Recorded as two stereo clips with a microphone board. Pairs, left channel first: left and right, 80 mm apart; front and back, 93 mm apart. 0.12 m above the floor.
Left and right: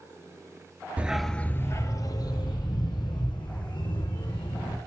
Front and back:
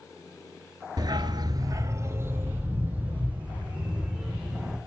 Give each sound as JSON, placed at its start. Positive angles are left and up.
{"t": 1.0, "sound": "a dog barking", "azimuth_deg": -155, "distance_m": 0.7}